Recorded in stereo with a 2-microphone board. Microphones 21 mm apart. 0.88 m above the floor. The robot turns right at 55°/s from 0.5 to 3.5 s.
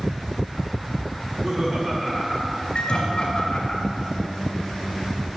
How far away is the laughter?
About 1.6 m.